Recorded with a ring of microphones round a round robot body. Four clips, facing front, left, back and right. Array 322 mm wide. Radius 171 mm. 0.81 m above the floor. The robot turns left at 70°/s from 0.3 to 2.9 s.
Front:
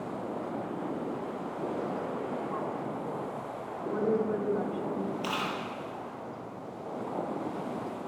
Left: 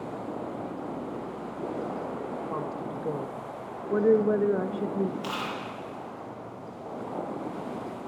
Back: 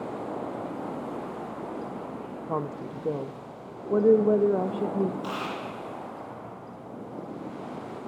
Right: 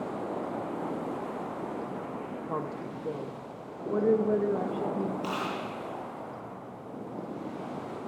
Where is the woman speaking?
175° right, 0.7 m; by 5.1 s 155° left, 0.7 m.